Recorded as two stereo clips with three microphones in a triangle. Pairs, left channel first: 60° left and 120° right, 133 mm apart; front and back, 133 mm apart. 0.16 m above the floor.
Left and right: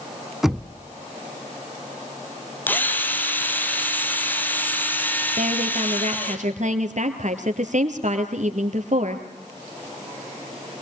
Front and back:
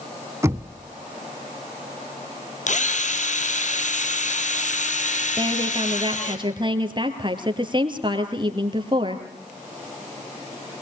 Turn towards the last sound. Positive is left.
turn(degrees=-130)